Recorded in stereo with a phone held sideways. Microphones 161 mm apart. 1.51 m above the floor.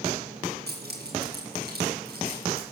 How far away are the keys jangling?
About 8.5 m.